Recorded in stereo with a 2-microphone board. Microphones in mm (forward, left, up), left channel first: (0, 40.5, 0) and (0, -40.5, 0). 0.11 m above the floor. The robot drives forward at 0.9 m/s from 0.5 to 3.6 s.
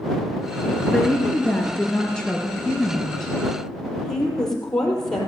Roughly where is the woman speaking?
Centre.